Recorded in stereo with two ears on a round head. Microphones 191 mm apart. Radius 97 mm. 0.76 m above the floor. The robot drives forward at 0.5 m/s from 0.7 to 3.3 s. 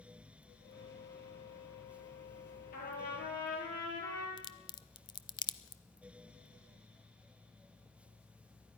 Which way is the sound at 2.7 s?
40° left (ahead or behind).